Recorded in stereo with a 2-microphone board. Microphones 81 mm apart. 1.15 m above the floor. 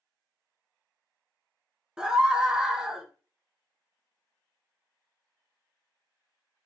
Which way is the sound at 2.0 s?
10° right (ahead or behind).